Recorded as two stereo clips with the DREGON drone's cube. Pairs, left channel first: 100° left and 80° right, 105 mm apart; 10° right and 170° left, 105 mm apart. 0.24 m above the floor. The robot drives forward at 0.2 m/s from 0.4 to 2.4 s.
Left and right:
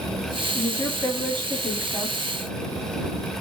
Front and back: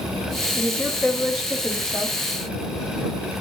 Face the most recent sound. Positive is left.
turn(degrees=125)